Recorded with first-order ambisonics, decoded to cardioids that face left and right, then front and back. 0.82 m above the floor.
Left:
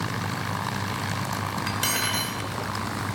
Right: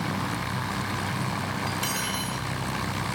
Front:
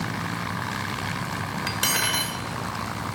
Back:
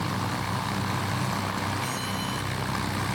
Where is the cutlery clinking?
15° left, 2 m.